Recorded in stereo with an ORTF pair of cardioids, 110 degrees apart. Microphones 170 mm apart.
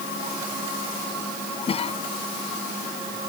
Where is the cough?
35° left.